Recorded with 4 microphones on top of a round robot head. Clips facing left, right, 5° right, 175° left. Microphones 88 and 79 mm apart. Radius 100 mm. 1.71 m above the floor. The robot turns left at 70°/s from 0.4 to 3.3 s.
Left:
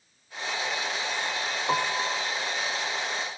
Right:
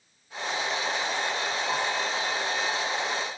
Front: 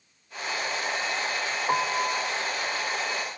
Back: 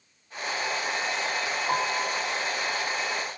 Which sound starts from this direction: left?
A piano, at 1.7 s.